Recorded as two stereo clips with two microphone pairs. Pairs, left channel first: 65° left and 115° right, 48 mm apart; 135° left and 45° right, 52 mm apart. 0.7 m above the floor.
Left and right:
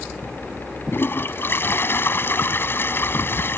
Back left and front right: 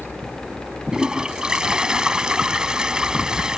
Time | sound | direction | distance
0.9 | a toilet flushing | 30° left | ?